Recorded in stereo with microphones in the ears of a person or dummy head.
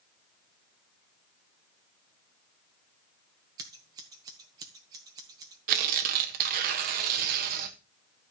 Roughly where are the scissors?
Right.